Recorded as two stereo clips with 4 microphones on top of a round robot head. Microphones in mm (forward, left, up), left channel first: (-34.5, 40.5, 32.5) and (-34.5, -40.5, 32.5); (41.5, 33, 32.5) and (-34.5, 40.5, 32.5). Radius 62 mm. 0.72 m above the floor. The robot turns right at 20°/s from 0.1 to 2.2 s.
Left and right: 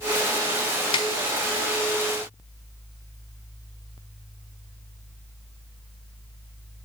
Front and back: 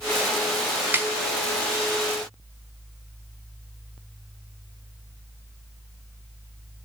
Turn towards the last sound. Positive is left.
turn(degrees=135)